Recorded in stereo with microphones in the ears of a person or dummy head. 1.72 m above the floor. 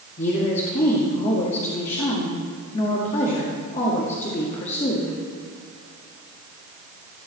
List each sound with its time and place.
0.2 s a woman speaking: 40° left (ahead or behind), 1.9 m